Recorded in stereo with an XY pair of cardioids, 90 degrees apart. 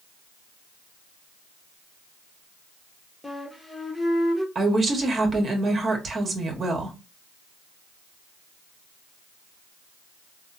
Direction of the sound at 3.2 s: 10° left.